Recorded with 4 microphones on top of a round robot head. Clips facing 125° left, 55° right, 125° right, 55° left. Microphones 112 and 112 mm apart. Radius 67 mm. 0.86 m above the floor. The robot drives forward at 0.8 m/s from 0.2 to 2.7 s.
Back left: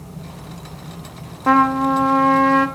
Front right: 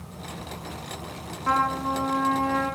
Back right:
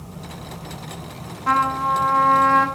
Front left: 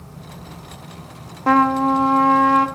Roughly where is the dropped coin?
No dropped coin in this recording.